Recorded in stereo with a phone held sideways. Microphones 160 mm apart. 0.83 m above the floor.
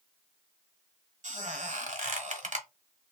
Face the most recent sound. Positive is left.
turn(degrees=-55)  # may be behind; listen again after turning